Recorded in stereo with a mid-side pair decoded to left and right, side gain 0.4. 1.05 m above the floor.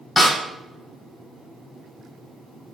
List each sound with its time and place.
0.2 s a snare drum: 30° left, 1.9 m